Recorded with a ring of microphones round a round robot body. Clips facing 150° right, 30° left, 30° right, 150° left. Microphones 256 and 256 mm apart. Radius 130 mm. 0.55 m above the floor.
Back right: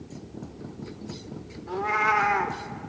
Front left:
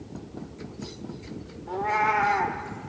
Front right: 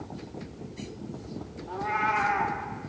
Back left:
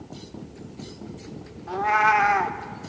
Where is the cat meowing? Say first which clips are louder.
Even, back left 7 dB; 140° left, 0.7 m.